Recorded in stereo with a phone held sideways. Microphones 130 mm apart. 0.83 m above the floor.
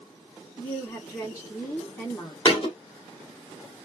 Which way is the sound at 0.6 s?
25° left (ahead or behind).